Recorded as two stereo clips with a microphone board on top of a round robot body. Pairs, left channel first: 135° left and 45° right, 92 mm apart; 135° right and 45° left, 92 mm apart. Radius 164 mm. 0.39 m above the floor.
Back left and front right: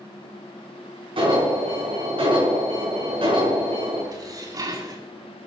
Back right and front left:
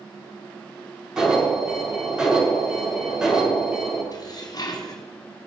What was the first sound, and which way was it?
An alarm, 40° right.